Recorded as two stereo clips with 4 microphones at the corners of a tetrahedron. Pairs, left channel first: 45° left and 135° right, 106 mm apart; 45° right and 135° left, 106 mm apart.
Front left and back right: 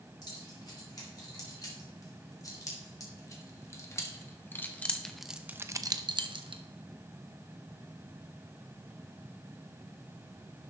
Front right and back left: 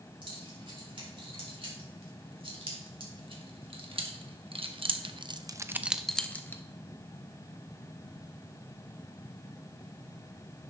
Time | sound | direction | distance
0.2 | keys jangling | 95° left | 4 m